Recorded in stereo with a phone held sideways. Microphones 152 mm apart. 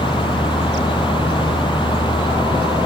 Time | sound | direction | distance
0.0 | a fan | 35° left (ahead or behind) | ?